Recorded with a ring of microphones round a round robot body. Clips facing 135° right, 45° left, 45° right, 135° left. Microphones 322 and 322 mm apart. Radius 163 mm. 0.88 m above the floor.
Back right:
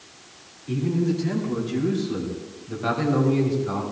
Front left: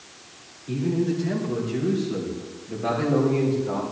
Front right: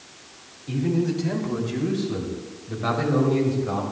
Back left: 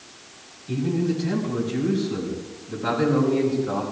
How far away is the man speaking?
About 3 m.